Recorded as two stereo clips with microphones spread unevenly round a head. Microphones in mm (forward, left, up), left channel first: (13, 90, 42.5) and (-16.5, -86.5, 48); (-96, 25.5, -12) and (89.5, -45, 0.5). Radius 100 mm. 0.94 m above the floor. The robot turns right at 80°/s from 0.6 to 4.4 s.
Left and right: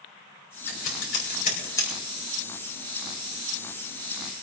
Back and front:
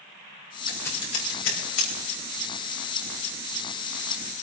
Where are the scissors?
65° left, 5 m; by 1.9 s 165° left, 5 m.